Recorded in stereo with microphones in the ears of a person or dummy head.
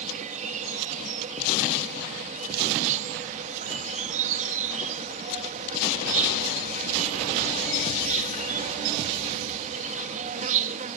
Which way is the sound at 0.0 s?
45° right (ahead or behind).